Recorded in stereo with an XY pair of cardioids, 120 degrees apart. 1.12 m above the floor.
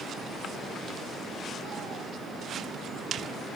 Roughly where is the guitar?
I don't hear a guitar.